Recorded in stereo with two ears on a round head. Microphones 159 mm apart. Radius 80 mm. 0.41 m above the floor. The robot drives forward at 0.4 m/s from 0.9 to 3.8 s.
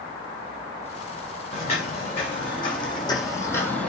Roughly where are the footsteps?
Left.